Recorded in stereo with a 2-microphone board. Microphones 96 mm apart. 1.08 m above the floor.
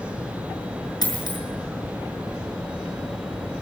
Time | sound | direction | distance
1.0 | a dropped coin | 45° left (ahead or behind) | 6 m